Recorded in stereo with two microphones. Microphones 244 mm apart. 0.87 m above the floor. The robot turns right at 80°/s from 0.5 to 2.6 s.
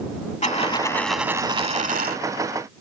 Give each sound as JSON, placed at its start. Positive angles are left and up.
{"t": 0.4, "sound": "a dropped coin", "azimuth_deg": 130}